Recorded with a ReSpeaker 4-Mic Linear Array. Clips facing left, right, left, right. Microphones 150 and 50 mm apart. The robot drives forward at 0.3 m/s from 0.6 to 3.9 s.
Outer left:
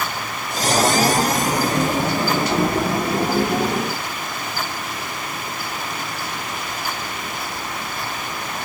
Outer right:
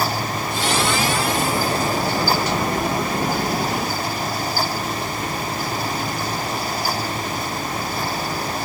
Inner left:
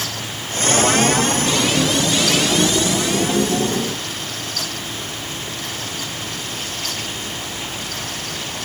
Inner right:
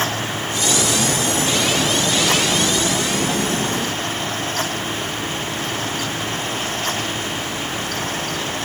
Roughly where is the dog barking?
No dog barking in this recording.